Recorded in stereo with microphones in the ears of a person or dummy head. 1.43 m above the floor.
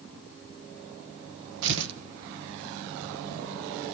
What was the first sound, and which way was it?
Tearing paper, 65° right (ahead or behind).